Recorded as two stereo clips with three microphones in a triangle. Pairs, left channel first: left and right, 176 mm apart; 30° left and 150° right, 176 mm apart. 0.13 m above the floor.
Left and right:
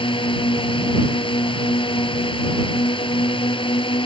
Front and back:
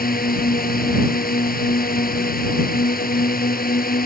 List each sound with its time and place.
0.0 s a drone: 35° left